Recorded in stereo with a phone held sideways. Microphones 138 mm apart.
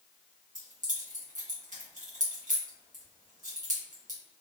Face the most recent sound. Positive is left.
turn(degrees=-65)  # may be behind; listen again after turning